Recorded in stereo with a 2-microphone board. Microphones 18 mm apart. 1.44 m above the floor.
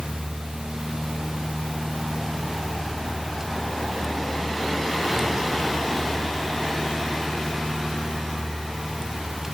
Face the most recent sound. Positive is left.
No sound to turn to.